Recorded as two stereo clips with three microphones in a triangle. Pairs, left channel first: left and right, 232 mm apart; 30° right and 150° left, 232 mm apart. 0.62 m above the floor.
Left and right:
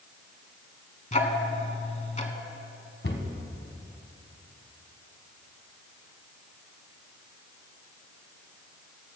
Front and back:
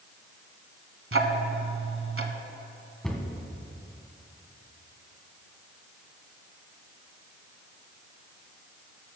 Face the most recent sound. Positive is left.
turn(degrees=55)